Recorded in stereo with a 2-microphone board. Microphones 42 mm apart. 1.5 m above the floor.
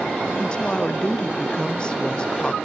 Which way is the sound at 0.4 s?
25° left (ahead or behind).